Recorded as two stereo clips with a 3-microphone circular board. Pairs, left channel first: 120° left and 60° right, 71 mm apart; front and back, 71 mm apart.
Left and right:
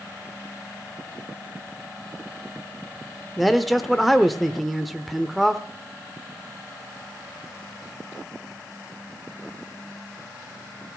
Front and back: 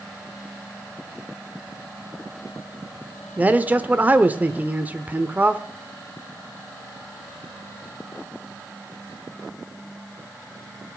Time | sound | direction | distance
3.4 | a man speaking | 150° right | 0.8 m